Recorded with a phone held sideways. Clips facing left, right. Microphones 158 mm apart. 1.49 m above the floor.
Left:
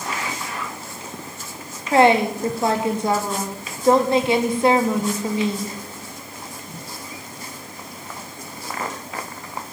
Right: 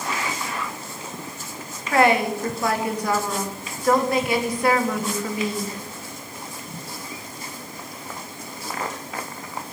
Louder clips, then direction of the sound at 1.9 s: Left 3 dB; 25° left (ahead or behind).